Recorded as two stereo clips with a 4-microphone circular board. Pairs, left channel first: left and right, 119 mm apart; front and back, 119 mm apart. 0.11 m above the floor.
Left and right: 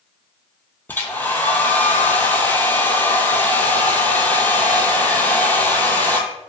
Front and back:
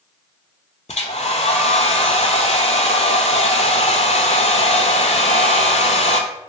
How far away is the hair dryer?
About 0.5 m.